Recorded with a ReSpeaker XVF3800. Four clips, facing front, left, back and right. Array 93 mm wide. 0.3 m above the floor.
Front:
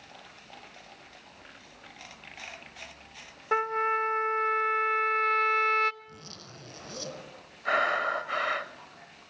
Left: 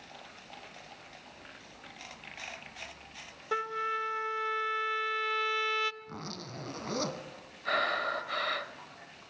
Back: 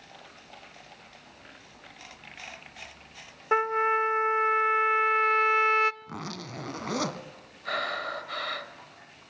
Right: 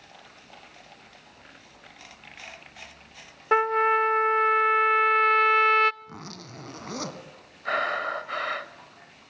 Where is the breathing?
35° right, 1.3 m.